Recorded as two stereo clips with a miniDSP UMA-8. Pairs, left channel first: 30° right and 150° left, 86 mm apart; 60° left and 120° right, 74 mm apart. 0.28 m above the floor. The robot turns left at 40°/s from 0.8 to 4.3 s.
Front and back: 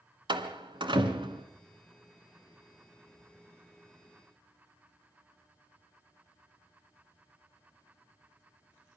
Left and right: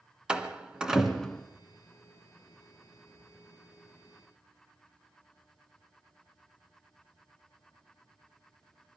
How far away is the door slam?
About 1.9 m.